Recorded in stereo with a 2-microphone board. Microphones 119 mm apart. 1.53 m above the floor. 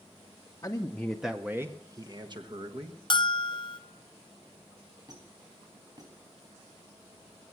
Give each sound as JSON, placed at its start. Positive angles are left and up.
{"t": 0.6, "sound": "a man speaking", "side_deg": 30, "distance_m": 0.8}
{"t": 3.1, "sound": "a bell", "side_deg": 45, "distance_m": 0.7}
{"t": 5.1, "sound": "a squeak", "side_deg": -35, "distance_m": 3.5}